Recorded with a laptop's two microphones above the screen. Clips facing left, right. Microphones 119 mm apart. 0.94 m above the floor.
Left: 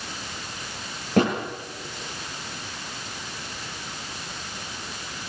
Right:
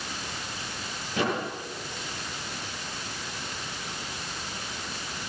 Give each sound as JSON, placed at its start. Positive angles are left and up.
{"t": 1.2, "sound": "a thud", "side_deg": 55, "distance_m": 8.5}